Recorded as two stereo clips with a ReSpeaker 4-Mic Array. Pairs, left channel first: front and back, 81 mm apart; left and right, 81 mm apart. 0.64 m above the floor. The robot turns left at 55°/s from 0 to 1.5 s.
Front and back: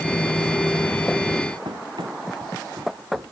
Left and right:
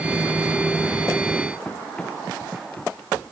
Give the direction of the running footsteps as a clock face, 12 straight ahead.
6 o'clock.